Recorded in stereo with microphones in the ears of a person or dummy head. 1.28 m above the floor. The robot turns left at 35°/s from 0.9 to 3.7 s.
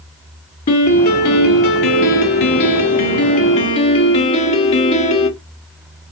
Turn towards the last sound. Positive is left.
turn(degrees=35)